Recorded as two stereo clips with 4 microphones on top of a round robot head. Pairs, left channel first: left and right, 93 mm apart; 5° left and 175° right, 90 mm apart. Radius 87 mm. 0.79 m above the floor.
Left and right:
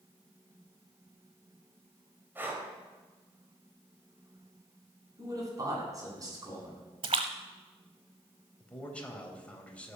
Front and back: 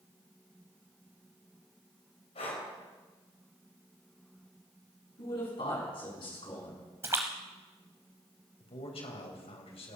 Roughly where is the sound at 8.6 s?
Ahead.